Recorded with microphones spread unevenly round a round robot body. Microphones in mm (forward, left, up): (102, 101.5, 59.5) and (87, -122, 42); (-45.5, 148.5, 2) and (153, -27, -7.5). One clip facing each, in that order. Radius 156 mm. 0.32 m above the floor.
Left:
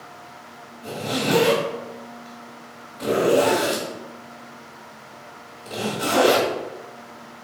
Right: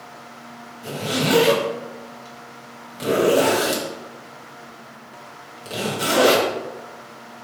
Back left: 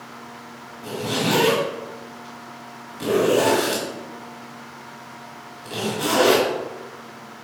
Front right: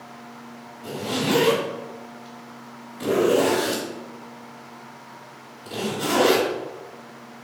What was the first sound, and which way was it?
A zipper, 150° right.